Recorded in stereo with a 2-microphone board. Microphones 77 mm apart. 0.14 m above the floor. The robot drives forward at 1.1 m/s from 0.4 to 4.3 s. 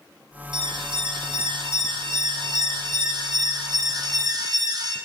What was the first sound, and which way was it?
An alarm, 75° right (ahead or behind).